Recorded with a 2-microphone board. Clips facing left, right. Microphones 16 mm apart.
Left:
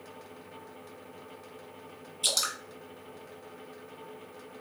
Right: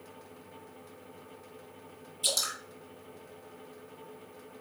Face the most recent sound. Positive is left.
turn(degrees=20)  # may be behind; listen again after turning